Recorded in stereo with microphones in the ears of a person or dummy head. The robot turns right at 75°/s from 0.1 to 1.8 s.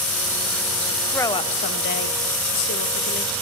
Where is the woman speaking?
10° left, 0.5 m; by 3.3 s 60° left, 0.5 m.